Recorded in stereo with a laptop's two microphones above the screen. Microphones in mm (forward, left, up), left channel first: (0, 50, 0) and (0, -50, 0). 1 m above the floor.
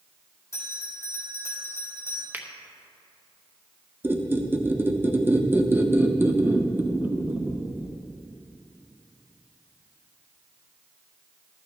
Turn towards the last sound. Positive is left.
turn(degrees=-20)  # may be behind; listen again after turning